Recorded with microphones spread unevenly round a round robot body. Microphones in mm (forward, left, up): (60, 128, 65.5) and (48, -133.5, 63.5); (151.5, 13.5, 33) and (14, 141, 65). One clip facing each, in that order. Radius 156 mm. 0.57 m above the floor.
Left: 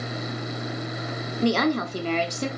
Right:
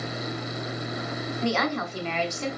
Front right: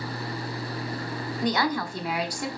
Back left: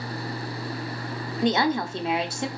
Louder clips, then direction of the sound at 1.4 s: Left 6 dB, back left 4 dB; 70° left.